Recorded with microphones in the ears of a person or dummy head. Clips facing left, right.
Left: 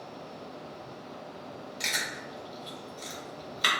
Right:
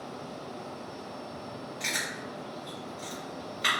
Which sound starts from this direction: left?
Chewing, at 1.8 s.